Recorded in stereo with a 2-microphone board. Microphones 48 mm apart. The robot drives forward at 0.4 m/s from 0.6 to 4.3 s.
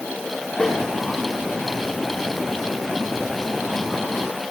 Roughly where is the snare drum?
Centre.